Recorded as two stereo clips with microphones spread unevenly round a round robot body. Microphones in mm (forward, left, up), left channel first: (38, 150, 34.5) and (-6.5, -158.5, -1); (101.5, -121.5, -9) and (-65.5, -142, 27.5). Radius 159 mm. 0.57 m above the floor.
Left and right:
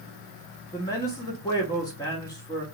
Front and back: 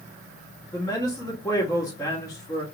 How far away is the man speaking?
About 0.8 m.